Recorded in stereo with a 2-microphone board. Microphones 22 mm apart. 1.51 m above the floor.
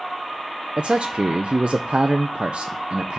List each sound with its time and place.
0.8 s a man speaking: 55° right (ahead or behind), 0.5 m